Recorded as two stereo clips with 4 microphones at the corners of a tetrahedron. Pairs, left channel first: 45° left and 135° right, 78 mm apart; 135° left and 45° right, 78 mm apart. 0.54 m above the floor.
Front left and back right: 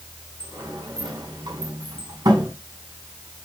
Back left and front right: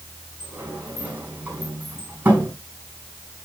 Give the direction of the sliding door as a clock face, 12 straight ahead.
4 o'clock.